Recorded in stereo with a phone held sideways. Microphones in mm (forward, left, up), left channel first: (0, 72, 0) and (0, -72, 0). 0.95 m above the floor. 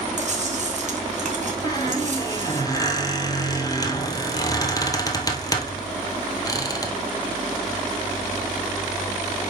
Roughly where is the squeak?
Left.